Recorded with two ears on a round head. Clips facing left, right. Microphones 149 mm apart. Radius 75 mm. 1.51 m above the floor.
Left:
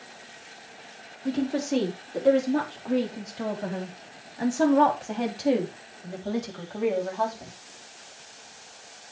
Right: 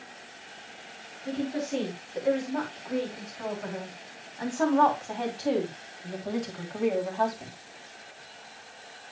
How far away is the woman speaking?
About 4 m.